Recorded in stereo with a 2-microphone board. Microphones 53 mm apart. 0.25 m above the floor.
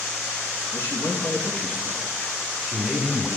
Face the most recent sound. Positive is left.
turn(degrees=-10)  # may be behind; listen again after turning